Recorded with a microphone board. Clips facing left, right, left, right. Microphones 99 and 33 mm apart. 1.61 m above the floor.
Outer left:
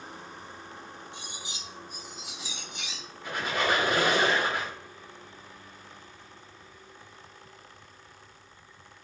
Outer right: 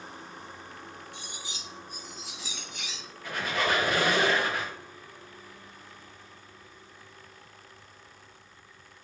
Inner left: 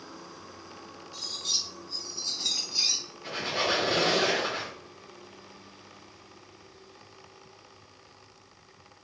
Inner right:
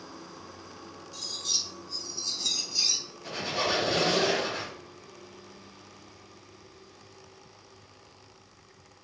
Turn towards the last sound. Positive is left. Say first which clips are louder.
# outer left 1 dB, inner left 1 dB
turn(degrees=20)  # may be behind; listen again after turning